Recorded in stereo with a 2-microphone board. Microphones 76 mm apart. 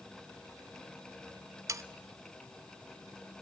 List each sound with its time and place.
1.7 s sawing: 40° right (ahead or behind), 0.6 m